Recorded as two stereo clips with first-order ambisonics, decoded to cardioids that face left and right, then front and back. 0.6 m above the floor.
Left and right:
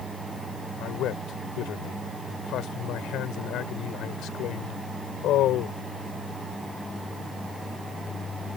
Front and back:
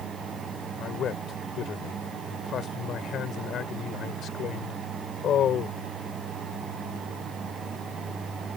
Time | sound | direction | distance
0.8 | a man speaking | 50° left | ?